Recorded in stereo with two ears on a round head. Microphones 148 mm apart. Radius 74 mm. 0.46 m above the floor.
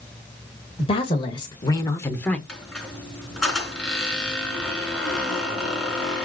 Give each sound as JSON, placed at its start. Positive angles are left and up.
{"t": 0.8, "sound": "a woman speaking", "side_deg": 35, "distance_m": 2.5}
{"t": 2.5, "sound": "a squeak", "side_deg": 5, "distance_m": 4.0}